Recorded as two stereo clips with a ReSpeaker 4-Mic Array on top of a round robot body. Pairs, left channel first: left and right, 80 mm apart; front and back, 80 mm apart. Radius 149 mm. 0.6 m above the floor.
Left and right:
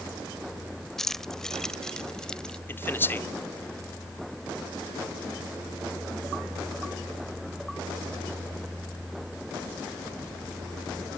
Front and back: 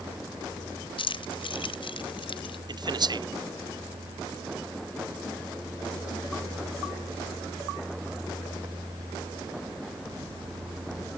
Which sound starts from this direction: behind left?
A man speaking, at 2.7 s.